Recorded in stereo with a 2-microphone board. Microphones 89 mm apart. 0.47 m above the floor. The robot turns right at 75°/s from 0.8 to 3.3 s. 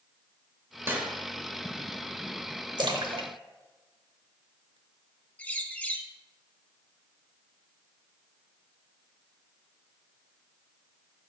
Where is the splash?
55° right (ahead or behind), 0.8 m; by 4.8 s 70° right (ahead or behind), 0.8 m.